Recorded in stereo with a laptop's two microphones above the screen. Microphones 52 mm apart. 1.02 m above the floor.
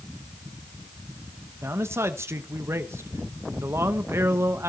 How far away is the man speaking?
About 1.1 m.